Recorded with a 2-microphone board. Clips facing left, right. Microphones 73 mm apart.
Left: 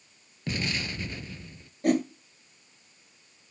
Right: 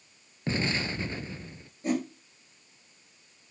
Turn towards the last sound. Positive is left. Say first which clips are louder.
# left 5 dB
turn(degrees=65)  # may be behind; listen again after turning